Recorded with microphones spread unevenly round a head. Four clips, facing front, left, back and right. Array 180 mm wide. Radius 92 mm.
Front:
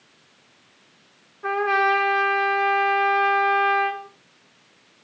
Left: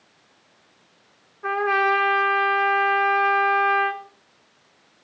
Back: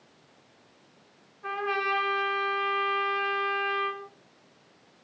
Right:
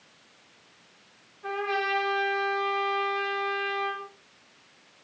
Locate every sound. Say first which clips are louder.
1.4 s a trumpet: left 8 dB, front 9 dB; 35° left, 5.5 m